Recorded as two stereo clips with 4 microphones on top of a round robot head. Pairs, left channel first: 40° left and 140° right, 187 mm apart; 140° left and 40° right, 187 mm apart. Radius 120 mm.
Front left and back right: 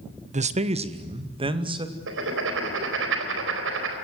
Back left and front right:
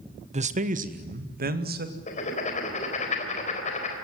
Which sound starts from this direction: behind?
Writing, at 2.1 s.